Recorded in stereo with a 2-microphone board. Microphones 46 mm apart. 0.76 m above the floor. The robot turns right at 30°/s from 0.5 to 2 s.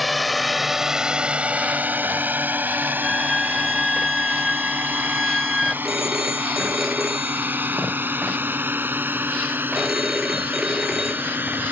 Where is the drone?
5° right (ahead or behind); by 11.7 s 55° right (ahead or behind).